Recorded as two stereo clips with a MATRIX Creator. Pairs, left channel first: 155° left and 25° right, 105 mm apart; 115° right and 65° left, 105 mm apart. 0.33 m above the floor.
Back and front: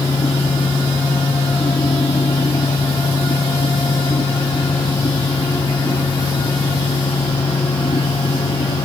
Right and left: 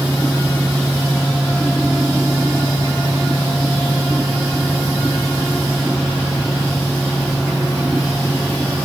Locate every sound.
Only background noise.